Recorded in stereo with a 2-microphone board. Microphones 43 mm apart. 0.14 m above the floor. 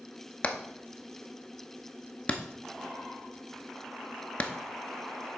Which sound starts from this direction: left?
Hammering, at 0.4 s.